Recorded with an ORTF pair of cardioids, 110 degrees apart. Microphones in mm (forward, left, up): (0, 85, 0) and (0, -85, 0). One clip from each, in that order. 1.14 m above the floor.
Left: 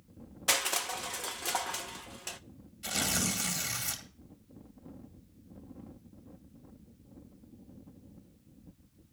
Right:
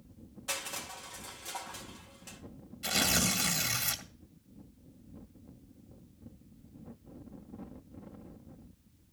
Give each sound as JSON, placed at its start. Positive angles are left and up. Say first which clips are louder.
{"t": 0.5, "sound": "crushing", "louder": "left 8 dB", "azimuth_deg": 60, "distance_m": 0.9}
{"t": 2.8, "sound": "tearing paper", "louder": "right 3 dB", "azimuth_deg": -15, "distance_m": 2.0}